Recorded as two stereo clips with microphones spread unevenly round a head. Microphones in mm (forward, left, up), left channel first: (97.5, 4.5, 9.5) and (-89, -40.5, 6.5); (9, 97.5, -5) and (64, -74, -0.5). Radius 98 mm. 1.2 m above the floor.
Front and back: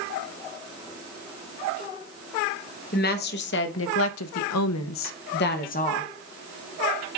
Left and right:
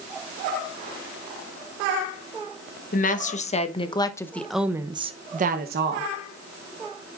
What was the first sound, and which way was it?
A woman speaking, 60° left.